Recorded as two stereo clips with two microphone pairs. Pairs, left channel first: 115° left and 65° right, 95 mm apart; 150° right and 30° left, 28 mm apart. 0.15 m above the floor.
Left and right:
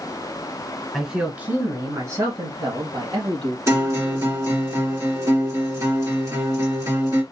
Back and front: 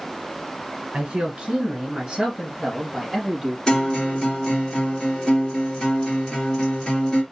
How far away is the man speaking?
About 1.7 m.